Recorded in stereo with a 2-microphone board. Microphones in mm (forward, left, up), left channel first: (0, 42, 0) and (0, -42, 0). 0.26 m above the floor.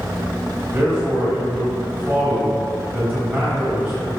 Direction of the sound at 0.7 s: 15° right (ahead or behind).